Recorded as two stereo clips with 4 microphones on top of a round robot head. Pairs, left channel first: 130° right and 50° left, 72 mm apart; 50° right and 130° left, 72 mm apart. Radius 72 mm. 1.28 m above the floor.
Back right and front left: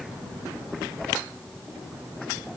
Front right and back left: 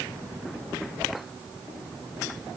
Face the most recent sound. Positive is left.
No sound to turn to.